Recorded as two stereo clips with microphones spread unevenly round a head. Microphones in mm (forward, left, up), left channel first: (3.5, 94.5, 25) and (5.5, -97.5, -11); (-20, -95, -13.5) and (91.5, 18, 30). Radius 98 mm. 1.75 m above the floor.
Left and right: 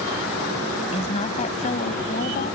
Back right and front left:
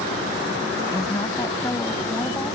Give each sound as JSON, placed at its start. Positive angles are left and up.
{"t": 0.9, "sound": "a woman speaking", "azimuth_deg": 150}